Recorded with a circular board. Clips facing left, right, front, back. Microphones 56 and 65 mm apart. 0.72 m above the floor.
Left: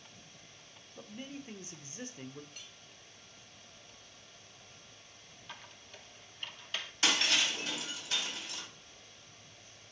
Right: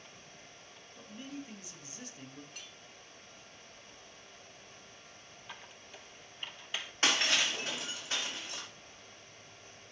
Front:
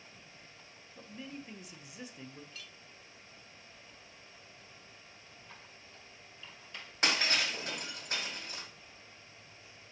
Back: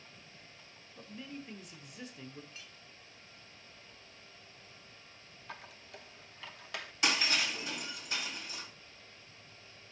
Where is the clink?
115° right, 0.8 m.